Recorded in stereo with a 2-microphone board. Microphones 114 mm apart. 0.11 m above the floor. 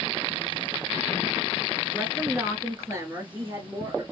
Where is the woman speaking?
15° right (ahead or behind), 1.2 m; by 4.0 s 25° right (ahead or behind), 2 m.